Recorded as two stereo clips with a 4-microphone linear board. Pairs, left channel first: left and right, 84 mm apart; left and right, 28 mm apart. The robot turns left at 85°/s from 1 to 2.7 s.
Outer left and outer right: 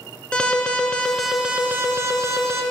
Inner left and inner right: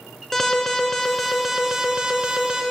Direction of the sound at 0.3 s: 20° left.